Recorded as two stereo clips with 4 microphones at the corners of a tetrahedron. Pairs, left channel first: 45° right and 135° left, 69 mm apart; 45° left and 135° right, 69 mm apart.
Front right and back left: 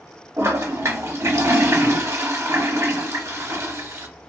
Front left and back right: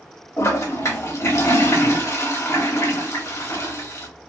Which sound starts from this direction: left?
A toilet flushing, at 0.4 s.